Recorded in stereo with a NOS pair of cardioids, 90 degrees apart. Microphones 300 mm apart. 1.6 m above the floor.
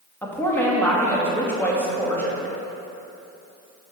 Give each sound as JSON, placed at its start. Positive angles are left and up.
{"t": 0.2, "sound": "a woman speaking", "azimuth_deg": 5, "distance_m": 2.5}